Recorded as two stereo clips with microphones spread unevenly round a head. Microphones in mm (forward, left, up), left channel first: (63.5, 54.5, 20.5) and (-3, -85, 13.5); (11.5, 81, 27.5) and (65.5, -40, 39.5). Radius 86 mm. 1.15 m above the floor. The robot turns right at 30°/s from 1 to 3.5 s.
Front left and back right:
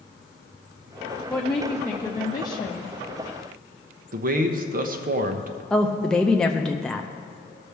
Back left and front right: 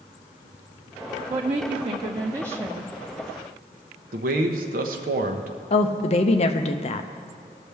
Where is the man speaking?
90° right, 0.9 m.